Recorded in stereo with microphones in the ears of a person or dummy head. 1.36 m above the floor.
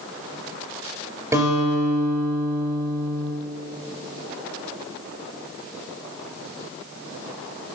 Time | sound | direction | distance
1.3 | a guitar | 15° right (ahead or behind) | 3.5 m